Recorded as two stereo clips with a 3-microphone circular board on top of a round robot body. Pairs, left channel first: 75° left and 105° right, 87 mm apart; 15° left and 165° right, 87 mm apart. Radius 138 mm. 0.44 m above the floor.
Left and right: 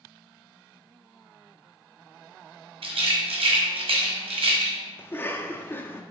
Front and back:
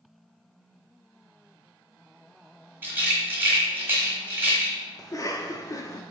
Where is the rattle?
95° right, 1.3 m.